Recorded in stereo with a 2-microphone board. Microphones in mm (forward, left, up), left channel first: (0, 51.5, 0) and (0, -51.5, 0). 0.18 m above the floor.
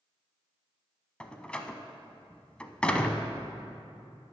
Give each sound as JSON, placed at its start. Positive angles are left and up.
{"t": 1.2, "sound": "a door slam", "side_deg": 10, "distance_m": 0.7}